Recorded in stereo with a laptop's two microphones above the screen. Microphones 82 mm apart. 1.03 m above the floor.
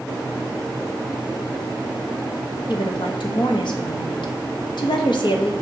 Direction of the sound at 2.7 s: 70° left (ahead or behind).